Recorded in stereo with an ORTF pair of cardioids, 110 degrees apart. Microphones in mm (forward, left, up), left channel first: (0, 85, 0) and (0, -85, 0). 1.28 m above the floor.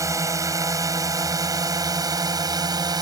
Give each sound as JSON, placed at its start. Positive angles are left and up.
{"t": 0.0, "sound": "a drone", "azimuth_deg": -20}